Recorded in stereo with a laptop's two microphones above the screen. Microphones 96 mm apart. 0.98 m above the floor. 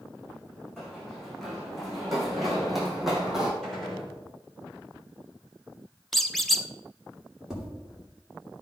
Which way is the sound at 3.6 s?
5° left (ahead or behind).